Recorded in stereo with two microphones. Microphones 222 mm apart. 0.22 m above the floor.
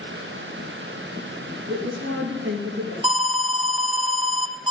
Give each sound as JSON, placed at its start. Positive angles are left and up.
{"t": 1.7, "sound": "a woman speaking", "side_deg": -55, "distance_m": 4.0}
{"t": 3.0, "sound": "an alarm", "side_deg": -20, "distance_m": 1.0}